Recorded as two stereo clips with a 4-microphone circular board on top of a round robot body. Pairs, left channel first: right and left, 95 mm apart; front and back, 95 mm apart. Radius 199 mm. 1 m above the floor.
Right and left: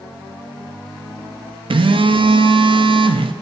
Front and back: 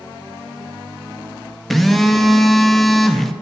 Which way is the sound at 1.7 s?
90° left.